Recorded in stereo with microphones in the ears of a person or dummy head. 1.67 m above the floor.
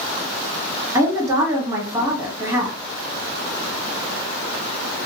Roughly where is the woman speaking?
Right.